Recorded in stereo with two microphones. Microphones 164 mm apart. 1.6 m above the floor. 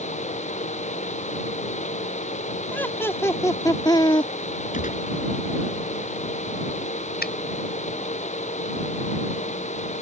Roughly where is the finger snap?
Left.